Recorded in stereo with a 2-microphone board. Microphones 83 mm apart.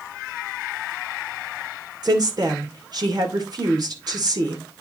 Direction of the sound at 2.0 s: 55° right (ahead or behind).